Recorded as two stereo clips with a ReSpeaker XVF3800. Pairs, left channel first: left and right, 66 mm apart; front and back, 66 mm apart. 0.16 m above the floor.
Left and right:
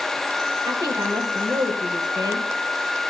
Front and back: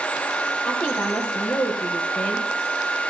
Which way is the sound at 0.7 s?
70° right.